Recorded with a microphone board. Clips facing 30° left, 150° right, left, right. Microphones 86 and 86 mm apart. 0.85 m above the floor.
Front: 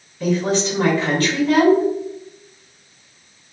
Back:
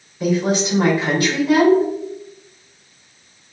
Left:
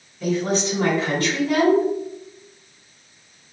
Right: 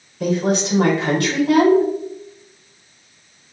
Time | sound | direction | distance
0.2 | a woman speaking | 70° right | 3 m